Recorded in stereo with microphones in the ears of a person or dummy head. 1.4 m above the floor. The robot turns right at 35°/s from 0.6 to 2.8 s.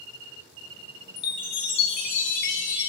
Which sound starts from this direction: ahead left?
A chime, at 1.2 s.